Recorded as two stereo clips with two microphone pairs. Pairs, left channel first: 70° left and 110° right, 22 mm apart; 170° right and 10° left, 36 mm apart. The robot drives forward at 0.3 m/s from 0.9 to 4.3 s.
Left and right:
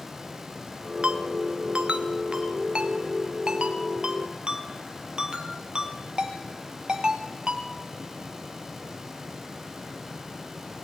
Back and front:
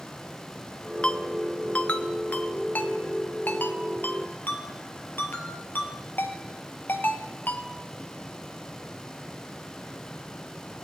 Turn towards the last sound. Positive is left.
turn(degrees=-155)